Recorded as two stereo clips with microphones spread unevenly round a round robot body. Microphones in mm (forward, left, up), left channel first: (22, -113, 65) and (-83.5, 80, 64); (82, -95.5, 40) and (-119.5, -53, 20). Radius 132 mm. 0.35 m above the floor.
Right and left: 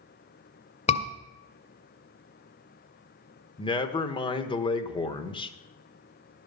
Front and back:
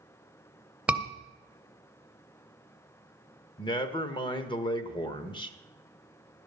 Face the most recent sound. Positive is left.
turn(degrees=-50)